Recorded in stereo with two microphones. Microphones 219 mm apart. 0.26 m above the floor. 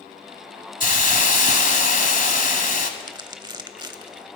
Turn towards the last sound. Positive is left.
turn(degrees=-20)  # may be behind; listen again after turning